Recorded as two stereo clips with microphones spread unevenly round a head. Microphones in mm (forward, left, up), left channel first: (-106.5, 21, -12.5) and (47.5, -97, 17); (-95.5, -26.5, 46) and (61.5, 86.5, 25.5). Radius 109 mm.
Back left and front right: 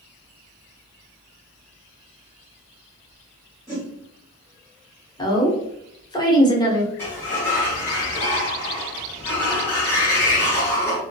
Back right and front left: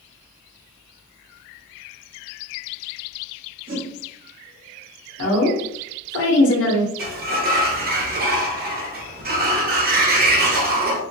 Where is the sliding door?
65° left, 0.6 m.